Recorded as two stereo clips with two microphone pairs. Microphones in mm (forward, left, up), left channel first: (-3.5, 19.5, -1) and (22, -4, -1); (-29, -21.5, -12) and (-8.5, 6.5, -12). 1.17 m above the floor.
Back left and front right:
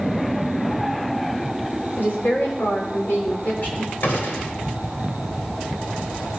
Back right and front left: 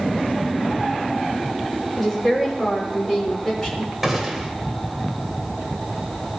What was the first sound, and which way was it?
A woman speaking, 155° left.